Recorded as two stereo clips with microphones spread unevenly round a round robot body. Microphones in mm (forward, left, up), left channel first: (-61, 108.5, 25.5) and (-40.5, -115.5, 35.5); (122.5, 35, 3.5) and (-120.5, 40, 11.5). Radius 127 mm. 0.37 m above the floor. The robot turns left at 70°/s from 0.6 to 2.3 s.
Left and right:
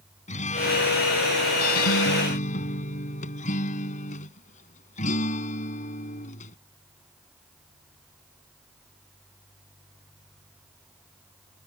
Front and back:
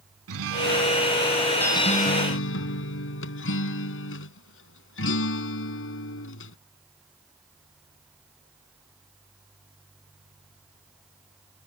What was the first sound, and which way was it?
A guitar, 155° left.